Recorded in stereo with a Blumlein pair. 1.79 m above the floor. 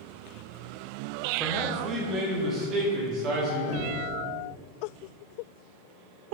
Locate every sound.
1.4 s a man speaking: 10° right, 1.0 m; by 3.6 s 35° right, 2.5 m
3.7 s knocking: 45° left, 1.5 m